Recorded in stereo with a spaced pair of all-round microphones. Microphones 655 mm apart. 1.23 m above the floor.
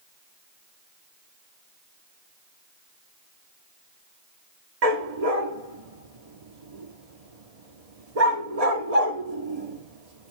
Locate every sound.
4.8 s a dog barking: 65° right (ahead or behind), 1.3 m